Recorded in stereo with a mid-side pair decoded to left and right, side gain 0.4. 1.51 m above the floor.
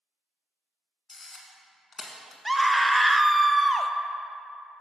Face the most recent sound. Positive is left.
turn(degrees=-5)